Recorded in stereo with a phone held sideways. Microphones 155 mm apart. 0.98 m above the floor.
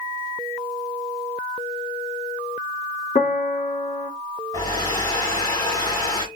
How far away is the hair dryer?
About 2 m.